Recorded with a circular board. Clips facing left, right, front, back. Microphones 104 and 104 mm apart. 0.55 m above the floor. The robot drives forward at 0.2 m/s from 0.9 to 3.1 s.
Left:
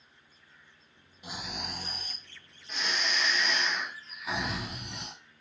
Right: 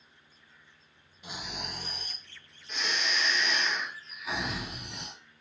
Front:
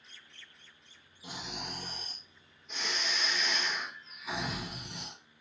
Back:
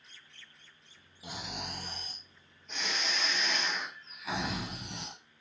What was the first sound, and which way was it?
Snoring, 175° left.